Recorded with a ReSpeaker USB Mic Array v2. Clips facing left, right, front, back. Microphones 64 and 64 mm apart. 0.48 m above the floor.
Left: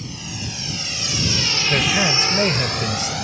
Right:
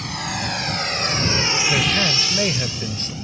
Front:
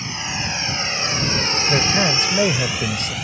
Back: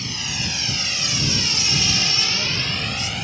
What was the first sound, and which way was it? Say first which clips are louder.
A drone: right 6 dB, front 3 dB; 65° right.